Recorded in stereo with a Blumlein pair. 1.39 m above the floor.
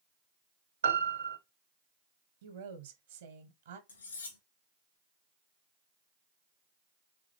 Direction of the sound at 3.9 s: 65° left.